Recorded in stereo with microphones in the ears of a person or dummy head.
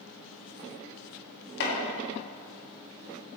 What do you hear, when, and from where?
1.6 s chopping: 65° left (ahead or behind), 2.5 m